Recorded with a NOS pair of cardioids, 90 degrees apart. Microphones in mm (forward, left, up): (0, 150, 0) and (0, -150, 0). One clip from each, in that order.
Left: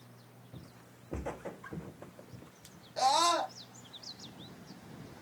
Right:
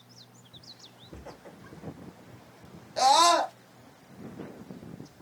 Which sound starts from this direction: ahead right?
A scream, at 3.0 s.